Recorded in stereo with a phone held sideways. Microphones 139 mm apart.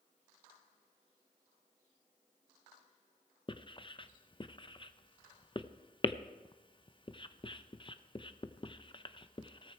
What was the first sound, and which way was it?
Writing, 35° left (ahead or behind).